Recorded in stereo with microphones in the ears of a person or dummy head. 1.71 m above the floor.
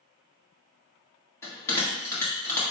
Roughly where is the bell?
Centre.